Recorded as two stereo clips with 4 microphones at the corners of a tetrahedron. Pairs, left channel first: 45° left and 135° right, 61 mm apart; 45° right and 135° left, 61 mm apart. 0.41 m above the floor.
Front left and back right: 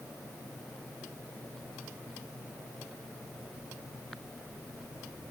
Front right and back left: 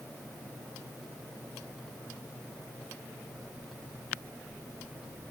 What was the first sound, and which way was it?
Only background noise.